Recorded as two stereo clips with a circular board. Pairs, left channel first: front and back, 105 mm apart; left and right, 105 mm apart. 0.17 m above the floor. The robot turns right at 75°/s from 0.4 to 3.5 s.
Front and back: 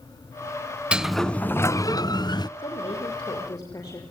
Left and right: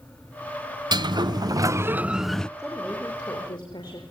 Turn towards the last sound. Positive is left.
turn(degrees=55)